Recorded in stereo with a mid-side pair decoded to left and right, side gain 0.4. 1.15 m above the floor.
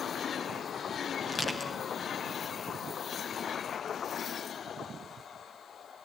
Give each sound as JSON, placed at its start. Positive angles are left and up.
{"t": 1.3, "sound": "crushing", "azimuth_deg": 30, "distance_m": 4.0}